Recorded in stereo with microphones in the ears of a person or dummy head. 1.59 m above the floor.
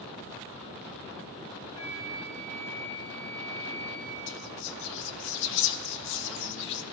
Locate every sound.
1.7 s a flute: 25° left (ahead or behind), 3 m
4.3 s whispering: 70° left (ahead or behind), 0.8 m